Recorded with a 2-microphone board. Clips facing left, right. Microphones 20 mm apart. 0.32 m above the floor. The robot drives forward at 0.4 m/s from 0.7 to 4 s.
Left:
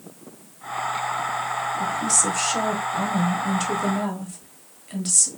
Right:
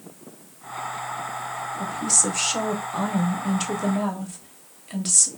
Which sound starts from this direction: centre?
A woman speaking, at 1.8 s.